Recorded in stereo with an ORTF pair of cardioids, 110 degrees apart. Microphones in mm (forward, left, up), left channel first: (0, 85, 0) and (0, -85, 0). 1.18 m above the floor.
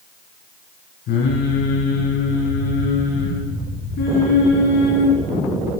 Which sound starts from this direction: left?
Singing, at 1.1 s.